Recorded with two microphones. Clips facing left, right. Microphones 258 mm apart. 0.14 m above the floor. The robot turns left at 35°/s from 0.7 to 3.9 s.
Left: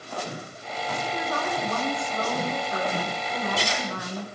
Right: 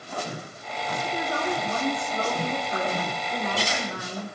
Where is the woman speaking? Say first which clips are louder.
Right 3 dB; 20° right (ahead or behind), 1.5 m; by 4.2 s 10° right (ahead or behind), 1.5 m.